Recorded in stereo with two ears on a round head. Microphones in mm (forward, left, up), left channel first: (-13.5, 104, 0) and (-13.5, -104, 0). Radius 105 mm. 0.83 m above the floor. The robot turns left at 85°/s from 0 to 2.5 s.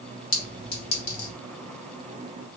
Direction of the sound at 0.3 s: 40° left (ahead or behind).